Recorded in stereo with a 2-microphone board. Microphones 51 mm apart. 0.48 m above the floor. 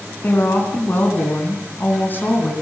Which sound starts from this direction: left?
A woman speaking, at 0.2 s.